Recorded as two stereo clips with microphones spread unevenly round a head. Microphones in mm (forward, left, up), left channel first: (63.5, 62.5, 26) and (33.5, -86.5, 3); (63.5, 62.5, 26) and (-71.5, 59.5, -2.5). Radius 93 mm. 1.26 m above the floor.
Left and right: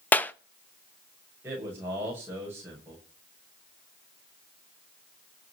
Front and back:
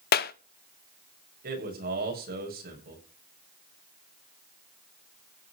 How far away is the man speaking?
About 7.5 m.